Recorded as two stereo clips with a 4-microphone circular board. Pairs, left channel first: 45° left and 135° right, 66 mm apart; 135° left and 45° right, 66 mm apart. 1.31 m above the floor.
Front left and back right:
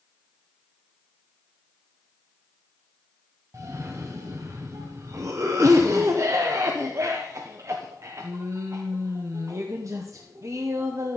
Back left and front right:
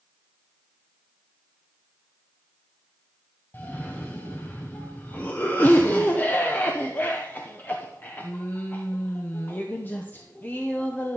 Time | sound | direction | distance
3.5 | a cough | 165° right | 0.8 m